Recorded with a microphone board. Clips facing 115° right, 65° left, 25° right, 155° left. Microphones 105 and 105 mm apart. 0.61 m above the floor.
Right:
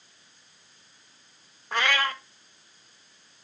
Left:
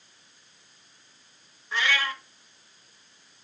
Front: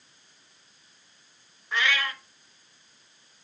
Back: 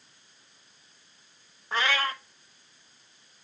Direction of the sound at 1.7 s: 150° right.